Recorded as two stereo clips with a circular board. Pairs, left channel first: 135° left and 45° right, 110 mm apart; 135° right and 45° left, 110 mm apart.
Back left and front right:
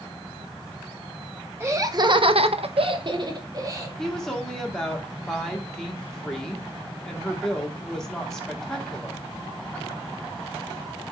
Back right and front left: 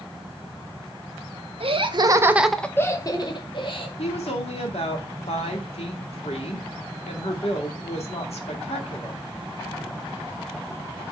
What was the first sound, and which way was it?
Laughter, 20° left.